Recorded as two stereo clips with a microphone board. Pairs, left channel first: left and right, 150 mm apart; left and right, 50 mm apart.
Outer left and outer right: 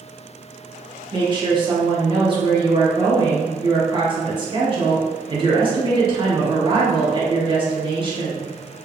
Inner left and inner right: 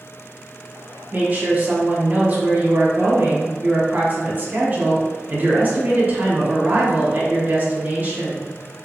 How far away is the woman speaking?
About 0.8 m.